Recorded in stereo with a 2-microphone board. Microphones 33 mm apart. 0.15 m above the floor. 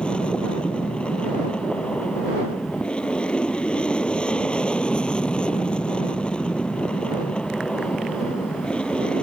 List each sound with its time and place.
0.0 s an aircraft: 30° left (ahead or behind)